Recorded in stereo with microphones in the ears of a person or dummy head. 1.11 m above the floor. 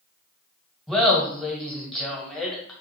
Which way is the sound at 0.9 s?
Centre (ahead or behind).